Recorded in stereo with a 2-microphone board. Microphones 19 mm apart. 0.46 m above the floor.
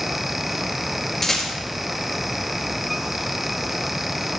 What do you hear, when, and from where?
1.2 s a rattle: 15° left (ahead or behind), 4 m